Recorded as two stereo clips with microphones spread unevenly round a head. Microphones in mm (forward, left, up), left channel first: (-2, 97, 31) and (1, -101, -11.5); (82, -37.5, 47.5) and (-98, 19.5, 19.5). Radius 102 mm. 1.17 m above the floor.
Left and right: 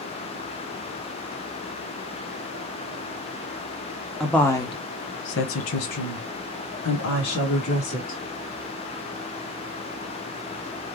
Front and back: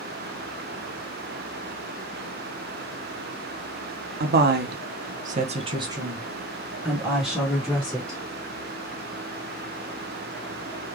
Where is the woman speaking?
175° right, 1.1 m; by 8.2 s 70° left, 3 m.